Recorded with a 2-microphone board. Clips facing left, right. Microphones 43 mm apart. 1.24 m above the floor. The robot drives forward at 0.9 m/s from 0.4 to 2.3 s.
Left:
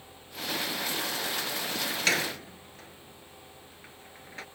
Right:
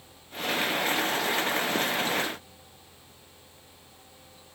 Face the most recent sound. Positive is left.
turn(degrees=80)